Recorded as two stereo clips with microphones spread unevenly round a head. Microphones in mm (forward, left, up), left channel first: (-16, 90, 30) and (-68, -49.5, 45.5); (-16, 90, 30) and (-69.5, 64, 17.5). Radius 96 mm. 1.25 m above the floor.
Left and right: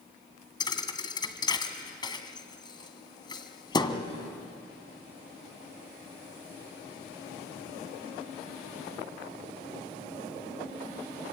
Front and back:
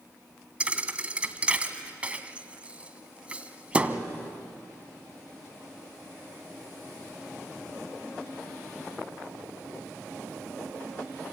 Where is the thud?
130° left, 1.9 m.